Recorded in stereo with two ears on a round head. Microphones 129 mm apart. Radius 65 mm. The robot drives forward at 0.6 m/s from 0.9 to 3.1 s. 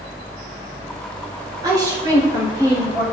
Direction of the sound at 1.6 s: 30° right (ahead or behind).